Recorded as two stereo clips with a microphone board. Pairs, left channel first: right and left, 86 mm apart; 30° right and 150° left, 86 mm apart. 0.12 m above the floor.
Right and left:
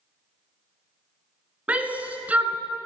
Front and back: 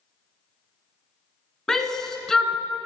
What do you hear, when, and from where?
1.7 s a shout: 45° left, 1.1 m